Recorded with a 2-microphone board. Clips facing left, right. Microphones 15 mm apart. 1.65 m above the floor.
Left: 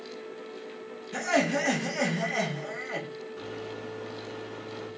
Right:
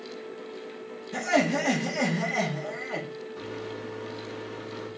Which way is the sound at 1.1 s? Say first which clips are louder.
Right 1 dB; 20° right (ahead or behind).